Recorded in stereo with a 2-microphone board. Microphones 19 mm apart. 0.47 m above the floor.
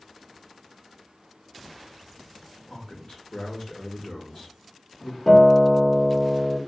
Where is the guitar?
20° left (ahead or behind), 1.3 m.